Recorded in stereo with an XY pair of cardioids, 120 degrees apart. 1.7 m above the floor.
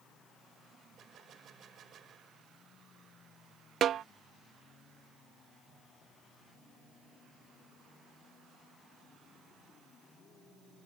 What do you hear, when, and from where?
1.0 s a gunshot: 50° right
3.8 s a snare drum: 50° right